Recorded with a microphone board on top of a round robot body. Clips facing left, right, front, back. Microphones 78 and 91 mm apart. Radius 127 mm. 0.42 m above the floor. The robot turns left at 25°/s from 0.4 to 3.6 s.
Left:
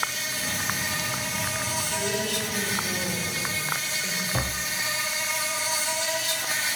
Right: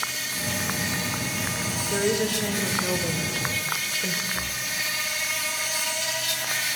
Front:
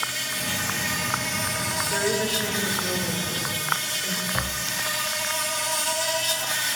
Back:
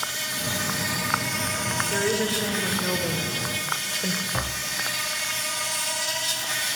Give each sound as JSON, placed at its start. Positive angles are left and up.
{"t": 0.0, "sound": "an insect", "azimuth_deg": 115, "distance_m": 3.0}
{"t": 1.9, "sound": "a woman speaking", "azimuth_deg": -100, "distance_m": 1.8}
{"t": 4.3, "sound": "tapping", "azimuth_deg": 100, "distance_m": 0.6}